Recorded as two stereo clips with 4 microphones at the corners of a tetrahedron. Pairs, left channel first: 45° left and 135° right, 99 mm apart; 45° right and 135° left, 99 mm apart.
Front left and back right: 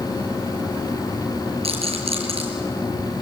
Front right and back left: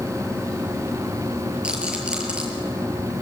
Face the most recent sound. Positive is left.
turn(degrees=-145)